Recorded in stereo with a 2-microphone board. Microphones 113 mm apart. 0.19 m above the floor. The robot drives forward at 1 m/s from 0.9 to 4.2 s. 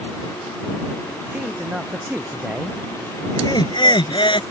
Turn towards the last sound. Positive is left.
turn(degrees=45)  # may be behind; listen again after turning